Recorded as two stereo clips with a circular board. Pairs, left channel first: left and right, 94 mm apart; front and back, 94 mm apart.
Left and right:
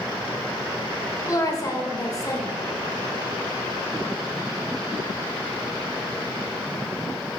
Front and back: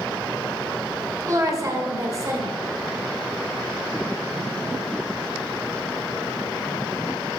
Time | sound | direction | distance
1.3 | a woman speaking | 135° left | 1.5 m